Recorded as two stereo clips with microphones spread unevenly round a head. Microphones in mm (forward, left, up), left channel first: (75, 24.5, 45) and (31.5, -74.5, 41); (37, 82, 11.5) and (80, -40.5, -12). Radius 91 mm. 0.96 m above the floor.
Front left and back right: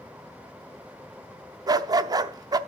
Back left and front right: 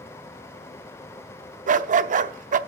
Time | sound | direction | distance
1.7 | a dog barking | 70° right | 0.6 m